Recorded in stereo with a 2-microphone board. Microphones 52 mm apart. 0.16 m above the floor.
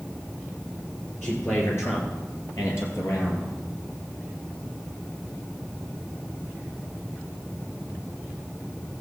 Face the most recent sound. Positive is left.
turn(degrees=60)  # may be behind; listen again after turning